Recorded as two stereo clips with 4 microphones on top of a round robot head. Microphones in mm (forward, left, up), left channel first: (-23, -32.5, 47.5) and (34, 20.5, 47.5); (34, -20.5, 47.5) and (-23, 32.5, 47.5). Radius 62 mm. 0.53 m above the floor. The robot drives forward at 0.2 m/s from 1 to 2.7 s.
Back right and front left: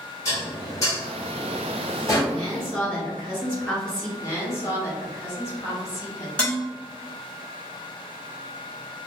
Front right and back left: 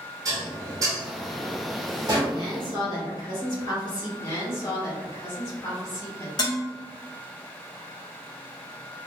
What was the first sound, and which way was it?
Dishes clattering, 175° left.